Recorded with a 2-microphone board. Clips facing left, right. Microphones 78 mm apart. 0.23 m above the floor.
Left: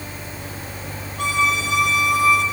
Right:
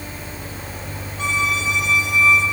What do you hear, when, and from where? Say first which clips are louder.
1.2 s a violin: left 2 dB; 70° left (ahead or behind), 6 m